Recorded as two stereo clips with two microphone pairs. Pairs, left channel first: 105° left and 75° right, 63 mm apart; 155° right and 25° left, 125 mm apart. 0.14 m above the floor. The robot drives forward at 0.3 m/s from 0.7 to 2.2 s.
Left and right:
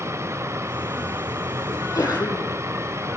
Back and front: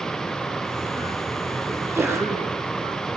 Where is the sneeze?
95° left, 5.5 m.